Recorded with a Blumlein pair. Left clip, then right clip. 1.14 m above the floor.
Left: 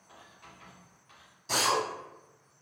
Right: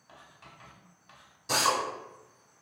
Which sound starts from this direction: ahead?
A drill, at 1.5 s.